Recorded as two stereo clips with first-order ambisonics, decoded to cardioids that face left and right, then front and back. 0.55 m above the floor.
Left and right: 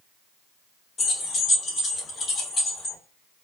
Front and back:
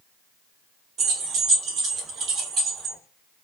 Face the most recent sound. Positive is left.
turn(degrees=160)